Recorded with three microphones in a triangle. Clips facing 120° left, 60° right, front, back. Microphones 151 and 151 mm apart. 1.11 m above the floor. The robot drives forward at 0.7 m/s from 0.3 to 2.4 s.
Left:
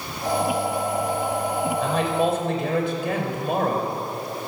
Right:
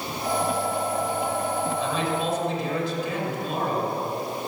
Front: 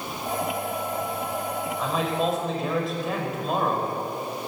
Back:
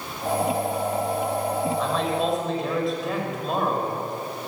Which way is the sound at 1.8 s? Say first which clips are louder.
Left 4 dB, back 1 dB; 85° left.